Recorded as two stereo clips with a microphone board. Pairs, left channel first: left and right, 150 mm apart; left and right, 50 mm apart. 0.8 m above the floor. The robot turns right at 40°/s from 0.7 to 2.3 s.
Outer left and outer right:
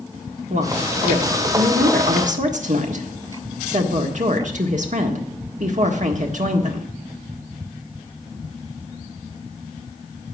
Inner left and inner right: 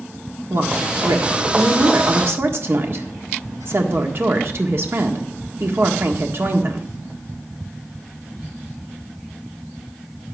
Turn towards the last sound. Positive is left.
turn(degrees=-60)